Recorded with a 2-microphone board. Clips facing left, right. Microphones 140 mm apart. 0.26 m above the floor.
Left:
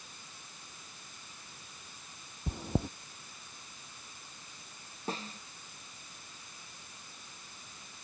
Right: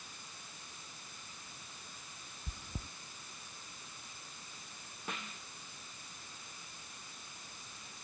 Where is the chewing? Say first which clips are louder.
Left 15 dB; 70° left (ahead or behind).